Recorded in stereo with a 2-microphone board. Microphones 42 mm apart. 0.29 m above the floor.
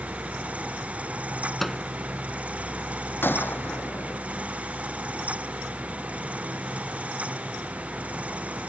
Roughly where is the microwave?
Centre.